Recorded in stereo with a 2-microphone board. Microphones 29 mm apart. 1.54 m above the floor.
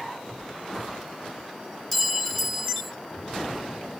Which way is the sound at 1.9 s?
10° left (ahead or behind).